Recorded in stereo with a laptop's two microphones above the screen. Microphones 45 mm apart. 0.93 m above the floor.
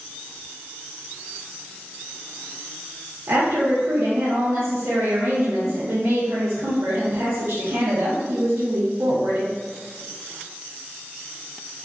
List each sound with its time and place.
3.3 s a woman speaking: 60° right (ahead or behind), 0.8 m